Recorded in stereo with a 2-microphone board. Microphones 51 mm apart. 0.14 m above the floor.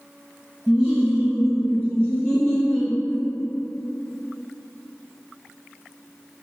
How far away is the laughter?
About 1.5 m.